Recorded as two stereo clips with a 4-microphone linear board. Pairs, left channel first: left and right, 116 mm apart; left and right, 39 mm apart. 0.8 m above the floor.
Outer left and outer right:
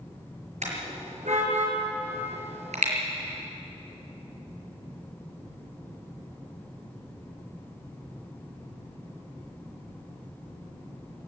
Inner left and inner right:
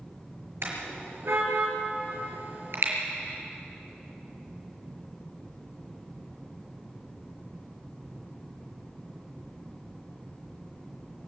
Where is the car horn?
80° right, 6 m.